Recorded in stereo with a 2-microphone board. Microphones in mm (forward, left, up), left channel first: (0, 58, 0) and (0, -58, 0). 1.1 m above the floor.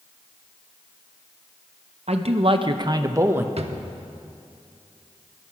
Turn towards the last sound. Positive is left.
turn(degrees=-60)  # may be behind; listen again after turning